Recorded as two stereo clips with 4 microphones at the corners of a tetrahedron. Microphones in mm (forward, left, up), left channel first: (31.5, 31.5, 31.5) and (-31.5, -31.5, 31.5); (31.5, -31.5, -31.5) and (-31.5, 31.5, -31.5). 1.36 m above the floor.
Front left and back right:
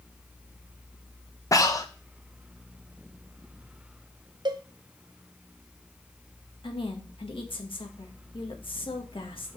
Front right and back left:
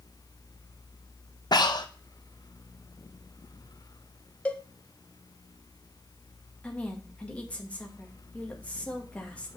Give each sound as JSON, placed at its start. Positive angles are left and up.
{"t": 1.5, "sound": "breathing", "azimuth_deg": -5, "distance_m": 1.0}
{"t": 4.5, "sound": "a cowbell", "azimuth_deg": -120, "distance_m": 0.8}
{"t": 6.6, "sound": "a woman speaking", "azimuth_deg": 30, "distance_m": 2.0}